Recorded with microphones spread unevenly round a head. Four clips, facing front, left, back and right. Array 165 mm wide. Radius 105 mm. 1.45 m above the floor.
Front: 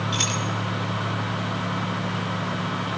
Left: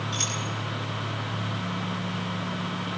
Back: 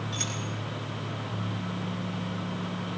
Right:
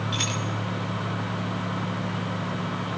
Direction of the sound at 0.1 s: 30° right.